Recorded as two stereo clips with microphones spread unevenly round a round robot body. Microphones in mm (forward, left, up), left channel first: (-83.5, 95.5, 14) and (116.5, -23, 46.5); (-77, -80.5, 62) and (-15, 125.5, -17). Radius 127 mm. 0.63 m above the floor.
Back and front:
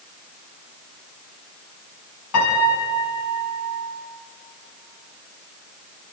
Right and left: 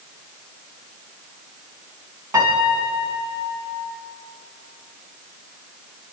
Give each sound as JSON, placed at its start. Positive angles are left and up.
{"t": 2.3, "sound": "a piano", "azimuth_deg": 150, "distance_m": 4.5}